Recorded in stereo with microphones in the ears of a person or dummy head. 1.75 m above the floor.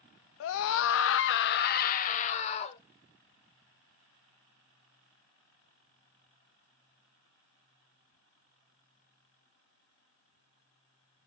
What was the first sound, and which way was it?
A scream, 75° left (ahead or behind).